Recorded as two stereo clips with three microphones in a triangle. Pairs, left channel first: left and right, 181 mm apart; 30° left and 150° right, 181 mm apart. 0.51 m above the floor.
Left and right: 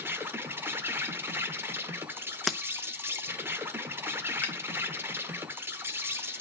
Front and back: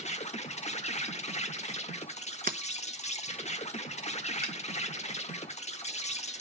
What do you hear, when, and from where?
0.0 s an insect: 15° right, 0.9 m
2.5 s breaking glass: straight behind, 0.8 m
4.4 s a finger snap: 10° left, 2 m